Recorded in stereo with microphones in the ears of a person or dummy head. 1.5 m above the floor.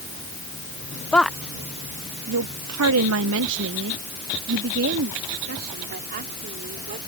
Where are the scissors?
I don't hear scissors.